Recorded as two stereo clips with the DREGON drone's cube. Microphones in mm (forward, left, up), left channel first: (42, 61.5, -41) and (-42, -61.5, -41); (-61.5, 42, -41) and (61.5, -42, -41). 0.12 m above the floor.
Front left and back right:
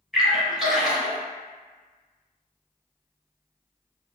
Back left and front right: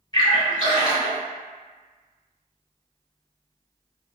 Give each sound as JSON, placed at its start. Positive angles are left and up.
{"t": 0.1, "sound": "a splash", "azimuth_deg": 150, "distance_m": 1.5}